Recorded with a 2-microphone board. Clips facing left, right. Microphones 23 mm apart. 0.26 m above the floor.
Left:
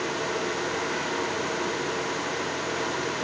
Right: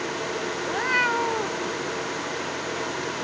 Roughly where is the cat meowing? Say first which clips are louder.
Right 5 dB; right.